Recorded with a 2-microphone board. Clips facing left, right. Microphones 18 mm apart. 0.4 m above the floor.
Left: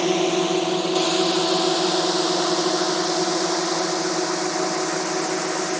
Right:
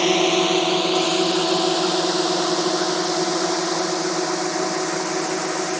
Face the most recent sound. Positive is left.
turn(degrees=-55)  # may be behind; listen again after turning